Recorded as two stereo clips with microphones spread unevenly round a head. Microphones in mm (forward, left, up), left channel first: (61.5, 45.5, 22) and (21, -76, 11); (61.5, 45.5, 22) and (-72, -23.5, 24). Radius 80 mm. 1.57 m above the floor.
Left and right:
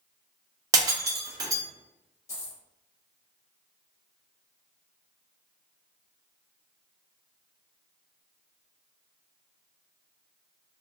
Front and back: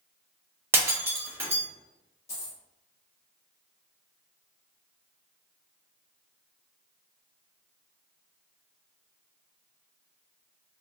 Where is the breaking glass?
110° right, 0.7 m.